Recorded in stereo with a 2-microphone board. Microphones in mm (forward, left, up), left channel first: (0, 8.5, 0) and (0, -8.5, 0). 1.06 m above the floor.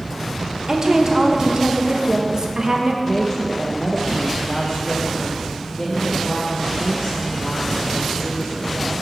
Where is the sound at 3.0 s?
25° left (ahead or behind), 0.7 m.